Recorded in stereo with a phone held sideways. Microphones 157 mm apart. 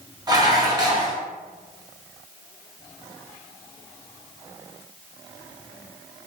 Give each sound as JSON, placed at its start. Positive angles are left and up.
{"t": 0.3, "sound": "dishes clattering", "side_deg": -25, "distance_m": 0.6}